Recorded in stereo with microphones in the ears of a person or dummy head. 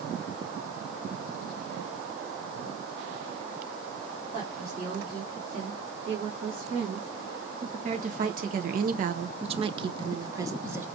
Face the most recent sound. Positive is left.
turn(degrees=-10)  # may be behind; listen again after turning